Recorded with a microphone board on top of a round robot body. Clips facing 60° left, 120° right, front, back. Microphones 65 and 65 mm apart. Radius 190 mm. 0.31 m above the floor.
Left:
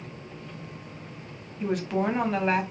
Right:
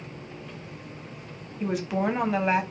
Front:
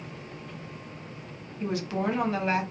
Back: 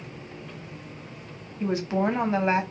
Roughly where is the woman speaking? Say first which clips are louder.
Even, back 4 dB; behind left.